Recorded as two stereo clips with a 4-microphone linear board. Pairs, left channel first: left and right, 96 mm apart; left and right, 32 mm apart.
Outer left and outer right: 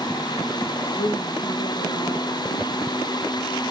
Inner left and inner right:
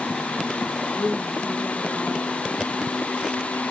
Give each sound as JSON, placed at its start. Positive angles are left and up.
{"t": 0.9, "sound": "a woman speaking", "side_deg": 50, "distance_m": 6.5}